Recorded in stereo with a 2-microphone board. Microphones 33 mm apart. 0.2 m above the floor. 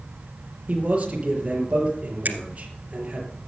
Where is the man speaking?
35° right (ahead or behind), 5 m.